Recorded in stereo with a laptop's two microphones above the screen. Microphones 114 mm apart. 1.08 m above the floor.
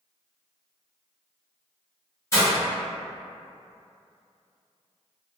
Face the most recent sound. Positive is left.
turn(degrees=25)  # may be behind; listen again after turning